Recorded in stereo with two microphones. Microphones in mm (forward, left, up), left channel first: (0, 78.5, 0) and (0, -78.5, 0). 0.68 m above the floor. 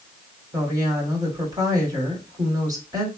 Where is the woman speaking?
20° right (ahead or behind), 2.0 m.